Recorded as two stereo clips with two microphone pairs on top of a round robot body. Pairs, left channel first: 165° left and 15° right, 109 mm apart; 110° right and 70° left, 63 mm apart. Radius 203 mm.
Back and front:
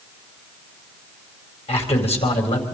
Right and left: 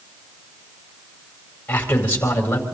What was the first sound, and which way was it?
A man speaking, 170° right.